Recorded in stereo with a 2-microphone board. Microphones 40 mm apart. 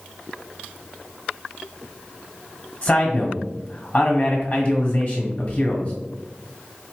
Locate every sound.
2.8 s a man speaking: 25° left (ahead or behind), 1.4 m